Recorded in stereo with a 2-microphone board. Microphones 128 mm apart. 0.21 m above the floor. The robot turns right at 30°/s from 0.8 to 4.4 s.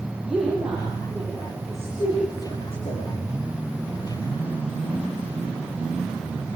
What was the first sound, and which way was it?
A woman speaking, 5° right (ahead or behind).